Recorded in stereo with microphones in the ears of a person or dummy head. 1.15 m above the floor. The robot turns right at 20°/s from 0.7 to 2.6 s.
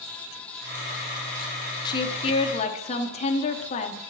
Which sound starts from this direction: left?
A woman speaking, at 1.9 s.